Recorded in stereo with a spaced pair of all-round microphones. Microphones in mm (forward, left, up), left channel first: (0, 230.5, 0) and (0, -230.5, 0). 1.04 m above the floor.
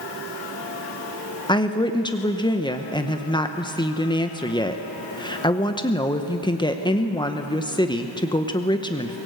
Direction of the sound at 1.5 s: 10° left (ahead or behind).